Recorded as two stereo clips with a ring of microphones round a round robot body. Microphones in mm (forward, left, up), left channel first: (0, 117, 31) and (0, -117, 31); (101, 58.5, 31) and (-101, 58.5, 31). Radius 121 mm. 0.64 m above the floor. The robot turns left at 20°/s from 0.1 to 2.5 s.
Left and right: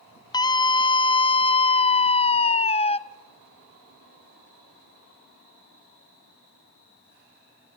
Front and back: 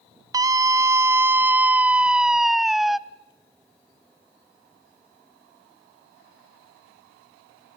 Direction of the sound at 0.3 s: 135° left.